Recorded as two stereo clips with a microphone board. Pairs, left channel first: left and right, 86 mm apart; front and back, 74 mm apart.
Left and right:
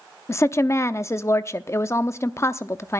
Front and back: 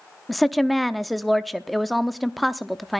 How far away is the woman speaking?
About 0.7 m.